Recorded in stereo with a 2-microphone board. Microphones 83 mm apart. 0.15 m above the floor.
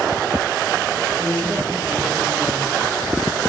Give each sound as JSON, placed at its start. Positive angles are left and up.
{"t": 1.2, "sound": "a woman speaking", "side_deg": 5, "distance_m": 3.0}